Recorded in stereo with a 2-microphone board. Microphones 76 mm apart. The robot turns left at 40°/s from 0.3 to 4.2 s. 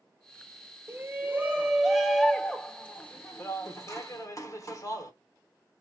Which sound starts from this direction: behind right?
A shout, at 0.9 s.